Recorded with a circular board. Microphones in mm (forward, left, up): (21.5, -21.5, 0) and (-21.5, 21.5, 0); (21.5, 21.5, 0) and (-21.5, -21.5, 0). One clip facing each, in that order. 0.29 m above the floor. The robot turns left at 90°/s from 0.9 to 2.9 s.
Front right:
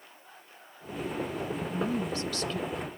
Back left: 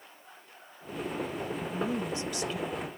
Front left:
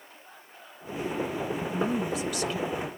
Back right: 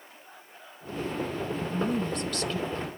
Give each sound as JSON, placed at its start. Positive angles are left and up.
{"t": 1.7, "sound": "a woman speaking", "azimuth_deg": 160, "distance_m": 0.9}